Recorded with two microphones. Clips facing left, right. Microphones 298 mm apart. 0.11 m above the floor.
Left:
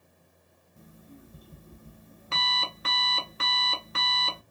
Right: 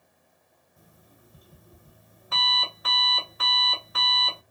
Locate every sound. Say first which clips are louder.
0.8 s an alarm clock: left 9 dB; 30° left (ahead or behind), 0.8 m